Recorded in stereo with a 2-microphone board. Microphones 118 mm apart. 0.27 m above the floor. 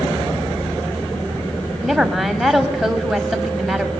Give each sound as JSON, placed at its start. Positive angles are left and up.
{"t": 1.8, "sound": "a woman speaking", "side_deg": 0, "distance_m": 1.9}